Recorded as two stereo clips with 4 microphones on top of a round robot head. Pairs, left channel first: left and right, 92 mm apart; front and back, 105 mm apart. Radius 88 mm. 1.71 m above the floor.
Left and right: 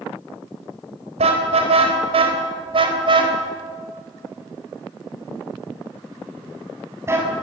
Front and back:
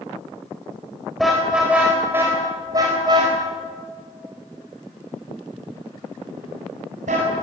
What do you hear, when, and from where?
1.2 s a car horn: 90° right, 4 m; by 7.3 s 150° right, 7 m